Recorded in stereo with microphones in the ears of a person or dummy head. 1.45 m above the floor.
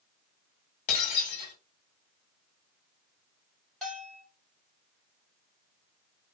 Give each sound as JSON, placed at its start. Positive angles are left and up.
{"t": 0.9, "sound": "breaking glass", "side_deg": 40, "distance_m": 2.0}
{"t": 3.8, "sound": "a bell", "side_deg": 5, "distance_m": 2.0}